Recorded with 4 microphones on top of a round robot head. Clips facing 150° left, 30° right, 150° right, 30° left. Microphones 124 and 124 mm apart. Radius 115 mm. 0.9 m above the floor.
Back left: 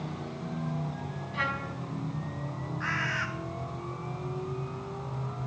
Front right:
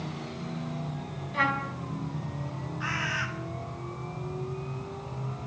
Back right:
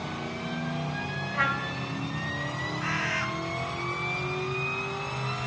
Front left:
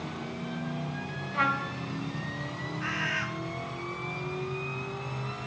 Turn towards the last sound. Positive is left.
turn(degrees=-110)